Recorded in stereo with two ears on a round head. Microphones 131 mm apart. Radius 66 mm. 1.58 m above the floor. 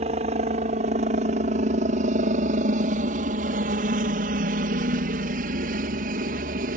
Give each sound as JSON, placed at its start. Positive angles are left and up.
{"t": 0.0, "sound": "a helicopter", "side_deg": -45}